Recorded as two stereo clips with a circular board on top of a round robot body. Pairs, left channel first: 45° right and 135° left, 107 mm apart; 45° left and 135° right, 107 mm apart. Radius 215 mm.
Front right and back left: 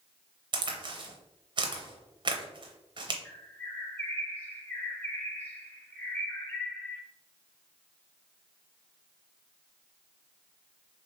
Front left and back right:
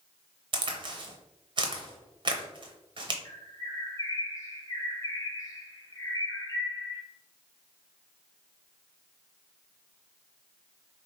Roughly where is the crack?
Behind.